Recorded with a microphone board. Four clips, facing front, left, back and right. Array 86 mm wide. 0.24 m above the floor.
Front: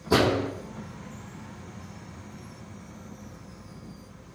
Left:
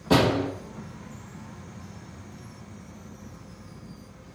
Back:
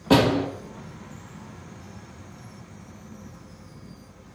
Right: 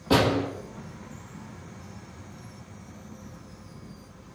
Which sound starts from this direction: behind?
A door slam, at 0.1 s.